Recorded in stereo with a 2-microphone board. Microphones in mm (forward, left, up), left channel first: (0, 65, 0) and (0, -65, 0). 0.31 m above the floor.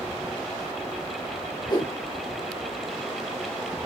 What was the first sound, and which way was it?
A whoosh, 35° left (ahead or behind).